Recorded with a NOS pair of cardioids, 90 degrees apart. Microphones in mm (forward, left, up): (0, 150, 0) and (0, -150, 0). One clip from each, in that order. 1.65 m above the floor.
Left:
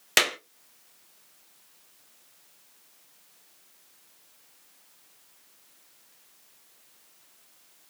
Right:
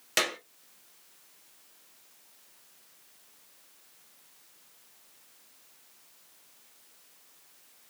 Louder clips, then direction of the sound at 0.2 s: Left 6 dB; 40° left.